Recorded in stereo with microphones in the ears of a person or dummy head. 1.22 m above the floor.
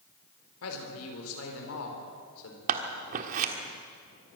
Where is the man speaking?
80° left, 4 m.